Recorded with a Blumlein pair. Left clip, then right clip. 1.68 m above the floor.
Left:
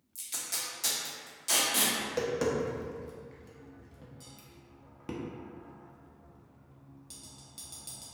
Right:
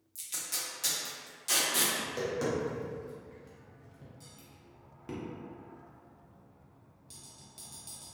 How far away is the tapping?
About 0.5 m.